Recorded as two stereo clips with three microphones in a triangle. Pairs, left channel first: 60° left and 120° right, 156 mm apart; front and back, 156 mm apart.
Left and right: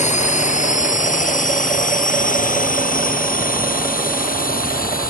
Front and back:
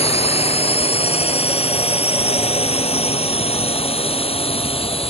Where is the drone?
40° left; by 5.1 s 50° left.